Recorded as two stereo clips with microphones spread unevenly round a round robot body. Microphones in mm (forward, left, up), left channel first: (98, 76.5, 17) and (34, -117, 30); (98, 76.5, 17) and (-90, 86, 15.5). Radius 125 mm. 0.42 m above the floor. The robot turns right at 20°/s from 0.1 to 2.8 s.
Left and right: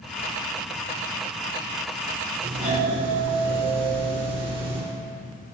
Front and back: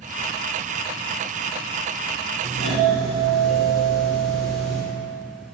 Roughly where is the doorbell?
Right.